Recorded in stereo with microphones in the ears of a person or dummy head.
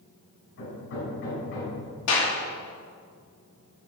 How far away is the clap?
About 3 m.